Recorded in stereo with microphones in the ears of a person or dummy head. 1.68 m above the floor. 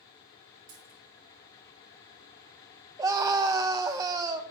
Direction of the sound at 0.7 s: 50° right (ahead or behind).